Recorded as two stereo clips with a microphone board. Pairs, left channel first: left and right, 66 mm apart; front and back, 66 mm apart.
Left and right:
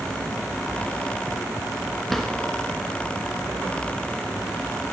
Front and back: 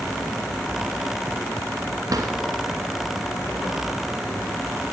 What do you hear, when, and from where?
2.1 s a drawer: 175° left, 1.2 m